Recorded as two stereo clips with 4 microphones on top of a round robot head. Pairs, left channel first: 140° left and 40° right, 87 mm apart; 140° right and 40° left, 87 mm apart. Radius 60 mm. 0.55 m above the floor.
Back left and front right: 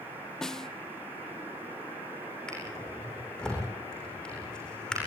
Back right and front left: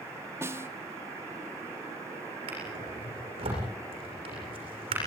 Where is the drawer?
60° left, 8 m.